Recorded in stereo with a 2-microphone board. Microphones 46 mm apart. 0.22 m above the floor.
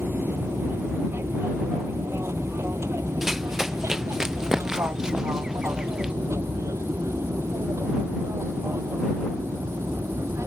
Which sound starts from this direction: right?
An aircraft, at 0.0 s.